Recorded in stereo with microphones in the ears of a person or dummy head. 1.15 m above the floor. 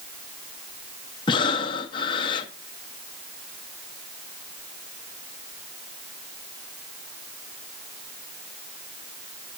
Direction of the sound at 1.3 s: 30° left (ahead or behind).